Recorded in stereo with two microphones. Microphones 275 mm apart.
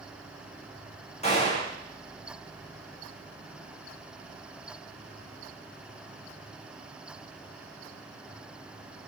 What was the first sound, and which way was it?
A gunshot, 25° left (ahead or behind).